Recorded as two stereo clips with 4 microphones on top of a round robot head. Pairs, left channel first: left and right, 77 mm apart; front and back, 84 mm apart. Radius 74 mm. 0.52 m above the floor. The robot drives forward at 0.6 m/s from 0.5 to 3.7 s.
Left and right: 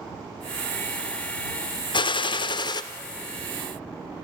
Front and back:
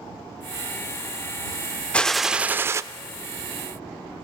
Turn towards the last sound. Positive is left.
turn(degrees=150)